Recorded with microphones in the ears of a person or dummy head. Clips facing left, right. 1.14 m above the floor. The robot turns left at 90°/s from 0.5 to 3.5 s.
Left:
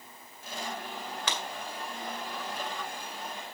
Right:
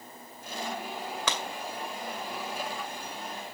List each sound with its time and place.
1.3 s breaking glass: 75° right (ahead or behind), 2 m